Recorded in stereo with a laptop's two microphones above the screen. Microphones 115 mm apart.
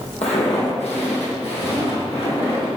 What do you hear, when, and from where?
0.2 s footsteps: 65° left (ahead or behind), 2 m; by 2.7 s 60° left (ahead or behind), 3 m